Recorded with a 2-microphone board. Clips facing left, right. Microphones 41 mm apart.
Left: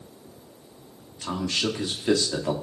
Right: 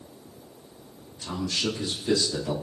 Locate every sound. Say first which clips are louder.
1.2 s a man speaking: left 2 dB; 85° left, 2 m